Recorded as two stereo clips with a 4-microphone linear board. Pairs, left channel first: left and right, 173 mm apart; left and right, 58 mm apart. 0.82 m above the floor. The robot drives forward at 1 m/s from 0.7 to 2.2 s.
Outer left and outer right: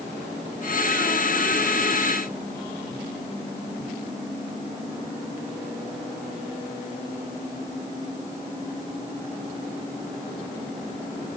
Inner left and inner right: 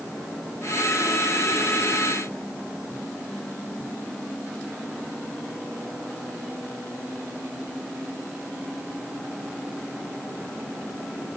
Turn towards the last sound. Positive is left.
No sound to turn to.